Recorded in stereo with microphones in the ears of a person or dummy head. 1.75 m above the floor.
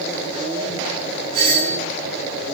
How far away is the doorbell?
About 5.5 m.